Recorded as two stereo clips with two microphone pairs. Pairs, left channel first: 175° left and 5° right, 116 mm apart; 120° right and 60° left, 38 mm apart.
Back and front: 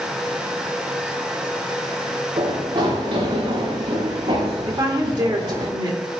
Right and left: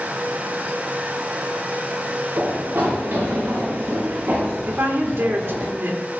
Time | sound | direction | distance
2.4 | running footsteps | 35° left | 5.5 m
4.7 | a woman speaking | 45° left | 2.5 m